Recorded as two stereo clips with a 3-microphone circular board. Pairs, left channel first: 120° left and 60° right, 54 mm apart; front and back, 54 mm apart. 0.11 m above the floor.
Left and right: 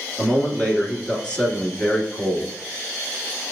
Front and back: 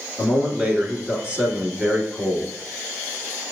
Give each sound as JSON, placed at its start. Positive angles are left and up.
{"t": 0.2, "sound": "a man speaking", "azimuth_deg": 145, "distance_m": 1.4}